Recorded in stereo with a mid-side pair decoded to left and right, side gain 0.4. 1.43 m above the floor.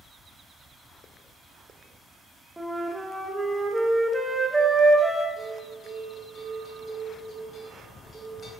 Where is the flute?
15° right, 0.6 m.